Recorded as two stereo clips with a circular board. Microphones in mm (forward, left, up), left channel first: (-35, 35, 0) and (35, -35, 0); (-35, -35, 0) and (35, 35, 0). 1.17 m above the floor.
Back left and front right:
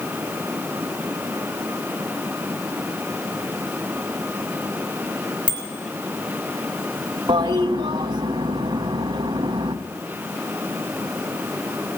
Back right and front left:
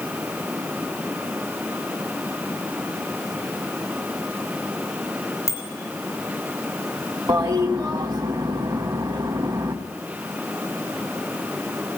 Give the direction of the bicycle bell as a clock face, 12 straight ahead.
6 o'clock.